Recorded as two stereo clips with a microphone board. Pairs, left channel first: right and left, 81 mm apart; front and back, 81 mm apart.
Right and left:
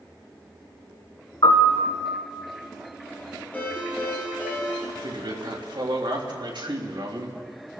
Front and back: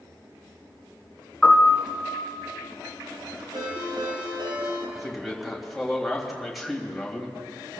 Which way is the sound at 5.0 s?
90° left.